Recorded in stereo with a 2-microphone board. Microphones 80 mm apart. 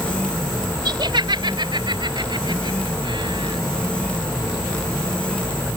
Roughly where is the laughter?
Right.